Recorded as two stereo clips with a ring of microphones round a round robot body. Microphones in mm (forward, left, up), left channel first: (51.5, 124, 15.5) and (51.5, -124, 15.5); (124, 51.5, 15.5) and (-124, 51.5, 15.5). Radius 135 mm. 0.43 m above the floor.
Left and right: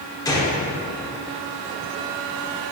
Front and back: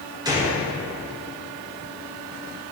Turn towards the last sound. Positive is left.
turn(degrees=135)